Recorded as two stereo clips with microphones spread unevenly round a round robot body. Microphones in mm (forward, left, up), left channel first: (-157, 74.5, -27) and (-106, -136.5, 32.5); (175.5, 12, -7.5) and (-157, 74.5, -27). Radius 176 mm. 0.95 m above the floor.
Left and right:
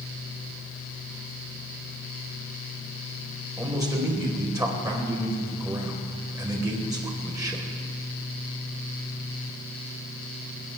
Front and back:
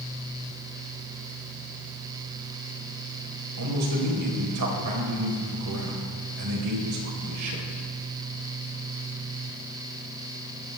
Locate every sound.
3.6 s a man speaking: 150° right, 4 m